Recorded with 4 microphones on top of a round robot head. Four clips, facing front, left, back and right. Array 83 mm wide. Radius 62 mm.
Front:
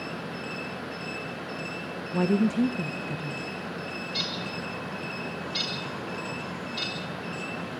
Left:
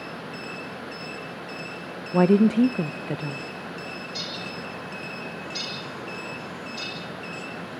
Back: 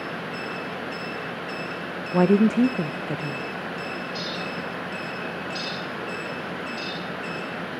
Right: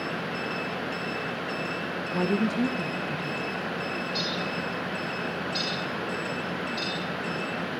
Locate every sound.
2.1 s a woman speaking: 135° left, 0.6 m
4.1 s a bird: 15° left, 6.5 m